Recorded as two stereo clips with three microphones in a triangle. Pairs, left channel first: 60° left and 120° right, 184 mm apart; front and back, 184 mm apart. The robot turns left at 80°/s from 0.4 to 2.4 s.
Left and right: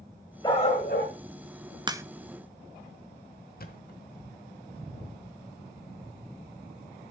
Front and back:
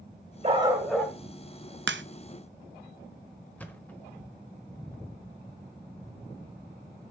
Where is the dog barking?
125° left, 2 m; by 1.1 s 70° left, 2 m.